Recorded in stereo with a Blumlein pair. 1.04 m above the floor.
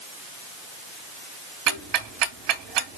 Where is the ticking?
40° right, 1.8 m.